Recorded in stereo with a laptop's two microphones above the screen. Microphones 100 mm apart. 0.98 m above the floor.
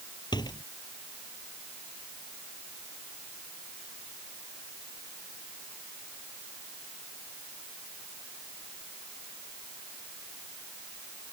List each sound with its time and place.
0.3 s a door slam: 50° left (ahead or behind)